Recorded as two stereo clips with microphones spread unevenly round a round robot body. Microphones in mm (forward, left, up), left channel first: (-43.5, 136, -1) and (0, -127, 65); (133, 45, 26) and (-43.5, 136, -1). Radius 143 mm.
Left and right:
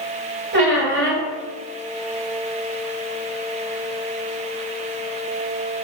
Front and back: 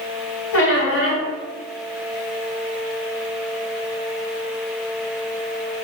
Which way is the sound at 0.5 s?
25° right.